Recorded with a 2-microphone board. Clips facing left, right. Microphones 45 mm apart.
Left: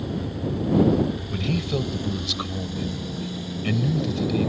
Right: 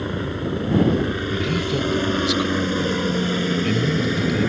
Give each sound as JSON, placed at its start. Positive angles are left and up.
{"t": 0.0, "sound": "a helicopter", "side_deg": -50}
{"t": 1.3, "sound": "a man speaking", "side_deg": 0}